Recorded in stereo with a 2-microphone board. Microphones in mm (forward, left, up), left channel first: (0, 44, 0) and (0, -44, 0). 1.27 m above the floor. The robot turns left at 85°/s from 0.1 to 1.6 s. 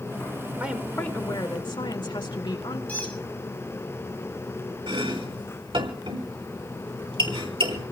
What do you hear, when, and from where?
0.6 s a woman speaking: 160° right, 2 m; by 2.8 s 115° left, 2 m
2.9 s a squeak: 15° left (ahead or behind), 5.5 m
4.9 s chopping: 85° right, 4 m